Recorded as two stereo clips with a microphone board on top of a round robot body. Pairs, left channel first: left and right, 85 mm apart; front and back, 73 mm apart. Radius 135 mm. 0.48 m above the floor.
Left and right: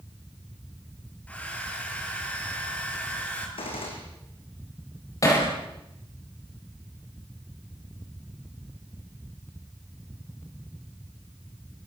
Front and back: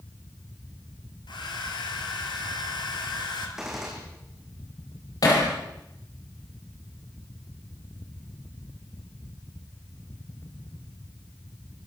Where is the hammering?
35° left, 7.5 m.